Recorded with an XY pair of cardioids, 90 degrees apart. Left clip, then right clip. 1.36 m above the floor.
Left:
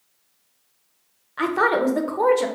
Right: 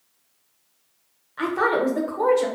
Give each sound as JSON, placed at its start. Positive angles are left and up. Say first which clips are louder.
{"t": 1.4, "sound": "a woman speaking", "louder": "left 2 dB", "azimuth_deg": 35, "distance_m": 0.5}